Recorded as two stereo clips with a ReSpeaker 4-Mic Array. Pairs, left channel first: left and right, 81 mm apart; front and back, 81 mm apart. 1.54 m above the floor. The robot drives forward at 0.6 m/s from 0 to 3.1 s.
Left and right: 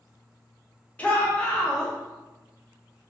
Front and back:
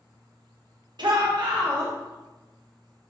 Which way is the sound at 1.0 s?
160° left.